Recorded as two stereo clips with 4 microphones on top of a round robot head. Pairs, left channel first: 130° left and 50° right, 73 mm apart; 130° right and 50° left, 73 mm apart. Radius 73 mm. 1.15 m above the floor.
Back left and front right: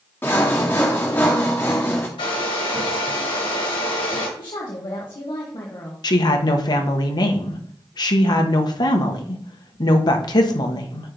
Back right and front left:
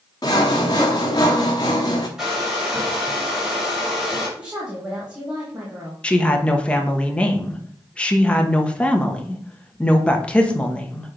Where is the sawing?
165° right, 0.7 m.